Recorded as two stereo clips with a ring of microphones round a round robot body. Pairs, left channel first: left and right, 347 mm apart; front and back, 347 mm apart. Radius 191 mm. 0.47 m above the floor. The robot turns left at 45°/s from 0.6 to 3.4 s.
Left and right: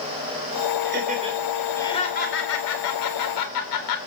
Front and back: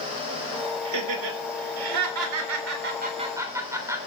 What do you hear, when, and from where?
0.8 s laughter: 145° right, 3.5 m; by 4.0 s 100° left, 3.5 m